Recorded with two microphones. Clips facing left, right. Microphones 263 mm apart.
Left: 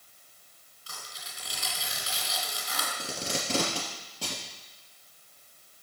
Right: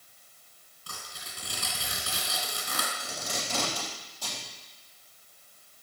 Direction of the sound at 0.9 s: 60° right (ahead or behind).